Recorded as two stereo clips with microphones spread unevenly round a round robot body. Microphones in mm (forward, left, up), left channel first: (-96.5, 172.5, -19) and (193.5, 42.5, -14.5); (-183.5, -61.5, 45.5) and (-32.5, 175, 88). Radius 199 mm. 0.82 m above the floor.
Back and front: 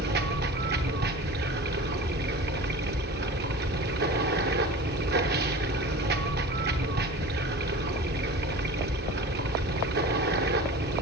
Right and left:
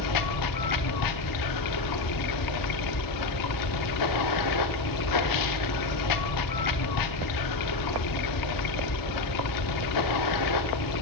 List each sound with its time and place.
0.0 s running water: 90° right, 0.7 m